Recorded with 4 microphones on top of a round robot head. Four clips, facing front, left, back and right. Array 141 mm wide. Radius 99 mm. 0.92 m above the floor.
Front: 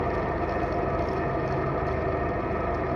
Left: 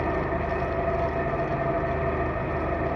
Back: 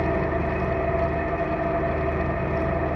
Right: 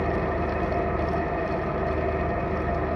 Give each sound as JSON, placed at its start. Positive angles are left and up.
{"t": 0.0, "sound": "an engine running", "azimuth_deg": 150, "distance_m": 6.0}